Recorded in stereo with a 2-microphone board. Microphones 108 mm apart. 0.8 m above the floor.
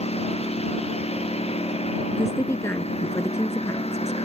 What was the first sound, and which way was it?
A lawn mower, 70° left (ahead or behind).